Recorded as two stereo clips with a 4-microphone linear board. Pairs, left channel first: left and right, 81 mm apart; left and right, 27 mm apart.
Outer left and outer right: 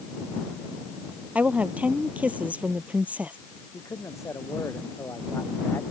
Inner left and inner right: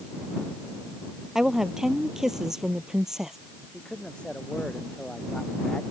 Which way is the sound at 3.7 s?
35° left (ahead or behind).